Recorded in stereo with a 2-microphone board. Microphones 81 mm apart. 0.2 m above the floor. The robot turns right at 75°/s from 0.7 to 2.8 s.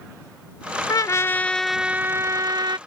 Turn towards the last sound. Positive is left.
turn(degrees=-100)